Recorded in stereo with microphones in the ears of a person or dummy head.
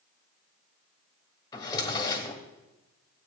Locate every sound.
1.5 s a drawer: 25° left (ahead or behind), 1.8 m